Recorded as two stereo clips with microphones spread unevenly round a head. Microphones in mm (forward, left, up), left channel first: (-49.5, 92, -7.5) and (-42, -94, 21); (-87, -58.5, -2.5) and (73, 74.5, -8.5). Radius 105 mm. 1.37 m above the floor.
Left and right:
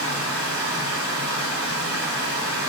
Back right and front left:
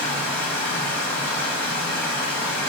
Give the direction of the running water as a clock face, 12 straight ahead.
2 o'clock.